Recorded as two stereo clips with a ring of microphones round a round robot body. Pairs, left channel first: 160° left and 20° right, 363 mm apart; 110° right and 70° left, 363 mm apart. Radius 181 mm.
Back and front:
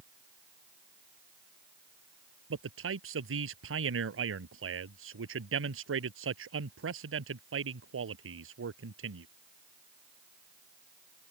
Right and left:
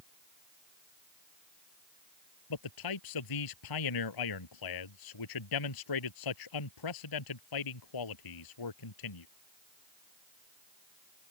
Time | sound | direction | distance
2.5 | a man speaking | 80° right | ?